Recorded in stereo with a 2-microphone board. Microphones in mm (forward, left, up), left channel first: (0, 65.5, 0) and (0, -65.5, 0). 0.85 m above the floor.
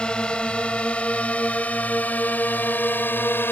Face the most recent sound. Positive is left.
turn(degrees=15)  # may be behind; listen again after turning